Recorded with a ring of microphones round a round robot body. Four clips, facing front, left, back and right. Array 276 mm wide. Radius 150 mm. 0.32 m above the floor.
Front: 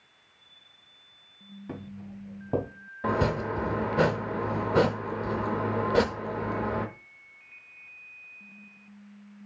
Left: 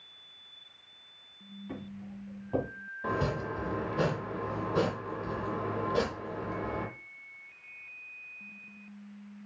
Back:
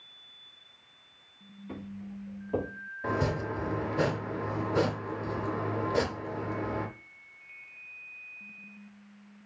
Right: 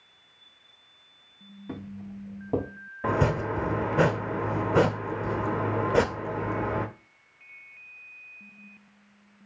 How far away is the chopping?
About 0.5 m.